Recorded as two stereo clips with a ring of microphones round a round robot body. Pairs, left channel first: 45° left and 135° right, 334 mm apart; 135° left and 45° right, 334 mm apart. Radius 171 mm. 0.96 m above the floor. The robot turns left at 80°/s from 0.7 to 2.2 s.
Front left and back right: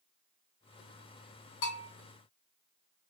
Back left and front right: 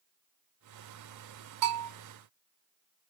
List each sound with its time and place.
1.6 s a bell: 10° right, 1.6 m; by 1.9 s 30° right, 1.6 m